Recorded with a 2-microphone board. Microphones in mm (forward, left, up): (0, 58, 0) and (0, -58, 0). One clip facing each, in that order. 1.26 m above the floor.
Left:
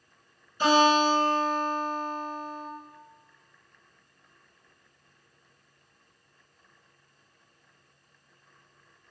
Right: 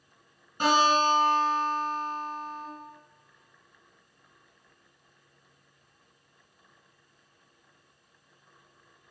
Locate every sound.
0.6 s a guitar: 55° right (ahead or behind), 1.9 m